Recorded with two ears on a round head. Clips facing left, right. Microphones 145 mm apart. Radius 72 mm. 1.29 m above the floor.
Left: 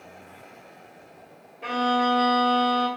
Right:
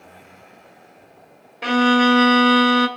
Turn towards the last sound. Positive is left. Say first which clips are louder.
# right 7 dB
turn(degrees=-80)